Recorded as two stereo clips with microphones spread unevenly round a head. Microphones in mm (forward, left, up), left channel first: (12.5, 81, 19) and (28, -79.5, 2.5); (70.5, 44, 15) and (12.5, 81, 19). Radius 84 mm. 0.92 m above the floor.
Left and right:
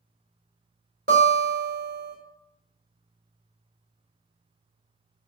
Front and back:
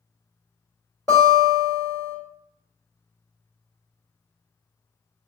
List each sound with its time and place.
1.1 s a guitar: 120° right, 1.2 m